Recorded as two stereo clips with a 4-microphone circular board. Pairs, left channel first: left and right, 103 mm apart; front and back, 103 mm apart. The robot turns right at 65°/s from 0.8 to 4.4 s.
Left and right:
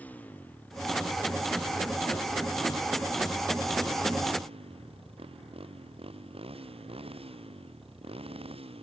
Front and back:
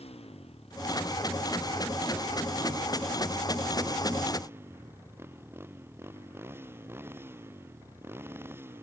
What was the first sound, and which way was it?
A motorcycle, 15° left.